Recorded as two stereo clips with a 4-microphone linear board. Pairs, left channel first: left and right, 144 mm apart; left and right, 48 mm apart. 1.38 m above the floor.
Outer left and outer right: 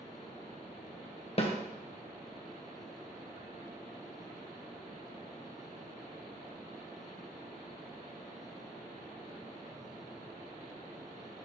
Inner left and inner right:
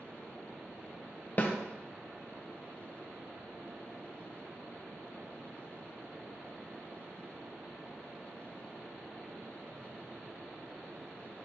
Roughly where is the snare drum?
Left.